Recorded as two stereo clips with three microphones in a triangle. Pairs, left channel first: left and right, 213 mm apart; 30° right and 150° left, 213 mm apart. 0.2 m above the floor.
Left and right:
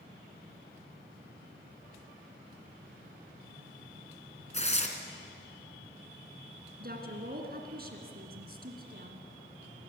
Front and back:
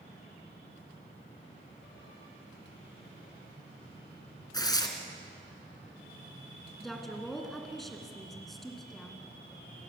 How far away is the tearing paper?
About 2.5 m.